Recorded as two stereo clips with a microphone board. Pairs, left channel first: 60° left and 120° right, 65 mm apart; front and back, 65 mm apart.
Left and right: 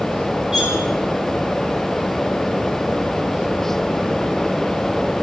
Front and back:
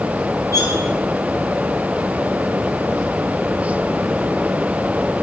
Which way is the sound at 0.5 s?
40° right.